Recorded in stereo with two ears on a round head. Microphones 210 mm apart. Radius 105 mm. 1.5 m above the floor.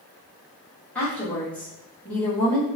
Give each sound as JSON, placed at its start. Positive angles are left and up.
{"t": 0.9, "sound": "a woman speaking", "side_deg": 5, "distance_m": 1.7}